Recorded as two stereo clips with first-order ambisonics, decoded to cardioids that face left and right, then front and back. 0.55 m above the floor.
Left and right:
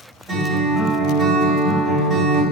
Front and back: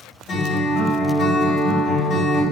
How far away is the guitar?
About 1.5 m.